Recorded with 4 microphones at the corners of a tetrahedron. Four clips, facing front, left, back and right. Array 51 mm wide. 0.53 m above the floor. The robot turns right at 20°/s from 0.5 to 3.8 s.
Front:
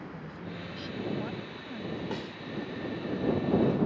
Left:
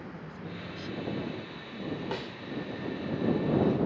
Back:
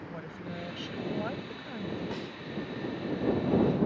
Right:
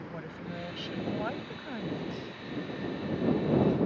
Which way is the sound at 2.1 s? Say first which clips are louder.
Left 4 dB, front 1 dB; 85° left.